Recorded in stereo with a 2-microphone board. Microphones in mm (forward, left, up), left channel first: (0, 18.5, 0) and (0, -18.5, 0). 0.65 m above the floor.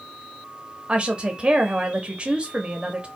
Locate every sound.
0.9 s a woman speaking: 30° right (ahead or behind), 0.9 m